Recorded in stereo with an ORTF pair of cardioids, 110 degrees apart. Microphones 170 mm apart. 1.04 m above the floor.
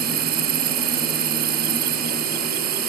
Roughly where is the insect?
Ahead right.